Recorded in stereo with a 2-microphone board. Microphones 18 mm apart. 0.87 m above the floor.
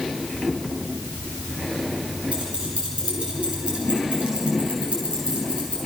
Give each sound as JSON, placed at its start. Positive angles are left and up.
{"t": 2.3, "sound": "keys jangling", "side_deg": -80, "distance_m": 9.0}